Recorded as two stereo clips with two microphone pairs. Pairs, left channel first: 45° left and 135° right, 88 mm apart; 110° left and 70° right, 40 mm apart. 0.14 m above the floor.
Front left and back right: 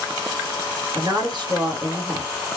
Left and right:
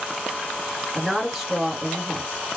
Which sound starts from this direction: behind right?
A woman speaking, at 0.9 s.